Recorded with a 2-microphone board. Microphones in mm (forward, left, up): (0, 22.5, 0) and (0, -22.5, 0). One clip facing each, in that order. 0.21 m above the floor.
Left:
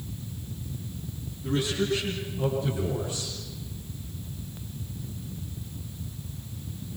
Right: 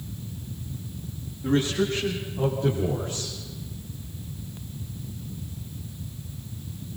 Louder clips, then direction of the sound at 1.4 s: Right 4 dB; 45° right (ahead or behind).